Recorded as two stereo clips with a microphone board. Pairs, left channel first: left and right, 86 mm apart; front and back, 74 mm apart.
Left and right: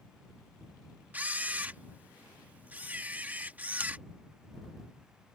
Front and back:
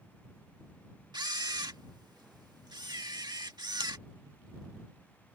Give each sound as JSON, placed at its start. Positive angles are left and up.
{"t": 1.1, "sound": "a camera shutter", "azimuth_deg": -160}